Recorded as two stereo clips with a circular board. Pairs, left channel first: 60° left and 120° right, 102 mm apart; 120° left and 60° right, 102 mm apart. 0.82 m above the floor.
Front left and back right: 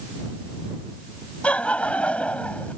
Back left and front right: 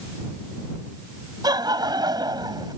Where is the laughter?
15° right.